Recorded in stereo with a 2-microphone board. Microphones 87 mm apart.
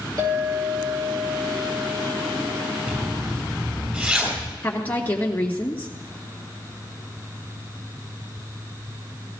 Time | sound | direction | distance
0.2 | a clink | 45° right (ahead or behind) | 7 m
2.9 | a zipper | 20° right (ahead or behind) | 6.5 m
4.6 | a woman speaking | 25° left (ahead or behind) | 2.5 m